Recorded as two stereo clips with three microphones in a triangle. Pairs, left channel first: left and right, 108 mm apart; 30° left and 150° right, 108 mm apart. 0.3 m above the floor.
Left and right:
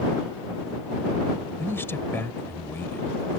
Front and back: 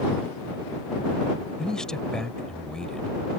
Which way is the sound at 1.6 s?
100° left.